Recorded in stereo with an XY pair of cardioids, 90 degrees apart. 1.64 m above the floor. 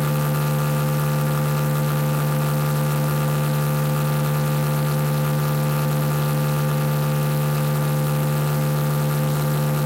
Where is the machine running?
5° left, 1.2 m.